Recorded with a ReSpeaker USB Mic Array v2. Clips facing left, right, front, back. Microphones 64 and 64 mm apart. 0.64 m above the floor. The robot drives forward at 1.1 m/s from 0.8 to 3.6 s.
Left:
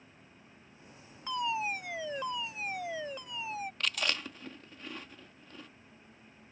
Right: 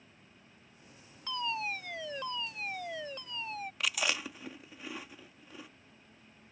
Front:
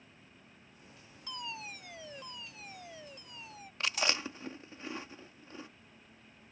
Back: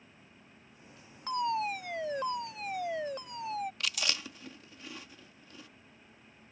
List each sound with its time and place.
1.3 s a fire alarm: 160° left; by 3.7 s 170° left
3.8 s chewing: 15° right